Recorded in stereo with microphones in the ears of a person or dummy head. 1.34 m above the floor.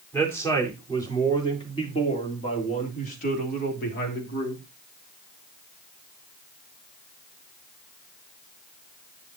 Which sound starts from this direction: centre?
A man speaking, at 0.1 s.